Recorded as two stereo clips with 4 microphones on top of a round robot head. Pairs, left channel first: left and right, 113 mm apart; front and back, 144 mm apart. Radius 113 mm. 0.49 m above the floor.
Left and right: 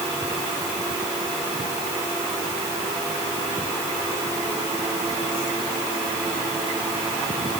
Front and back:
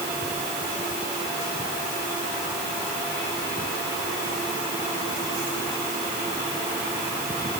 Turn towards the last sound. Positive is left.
No sound to turn to.